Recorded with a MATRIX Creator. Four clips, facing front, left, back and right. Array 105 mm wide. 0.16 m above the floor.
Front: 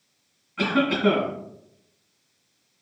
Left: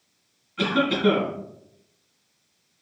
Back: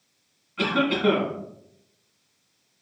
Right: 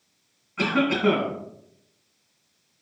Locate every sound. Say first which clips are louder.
0.6 s a cough: even, front 1 dB; 70° right, 1.7 m